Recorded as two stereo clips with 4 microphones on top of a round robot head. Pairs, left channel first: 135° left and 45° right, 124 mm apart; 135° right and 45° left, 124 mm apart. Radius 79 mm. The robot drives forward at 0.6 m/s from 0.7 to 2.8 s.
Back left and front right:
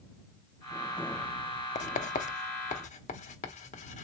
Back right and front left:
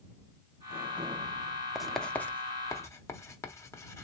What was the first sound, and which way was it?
Writing, 135° left.